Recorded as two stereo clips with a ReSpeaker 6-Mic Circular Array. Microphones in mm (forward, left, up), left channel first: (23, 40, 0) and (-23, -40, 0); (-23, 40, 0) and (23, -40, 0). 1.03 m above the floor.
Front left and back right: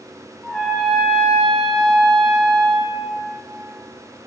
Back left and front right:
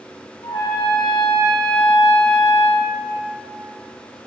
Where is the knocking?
No knocking in this recording.